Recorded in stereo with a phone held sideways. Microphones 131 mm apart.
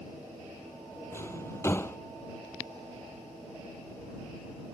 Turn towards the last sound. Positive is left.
turn(degrees=20)  # may be behind; listen again after turning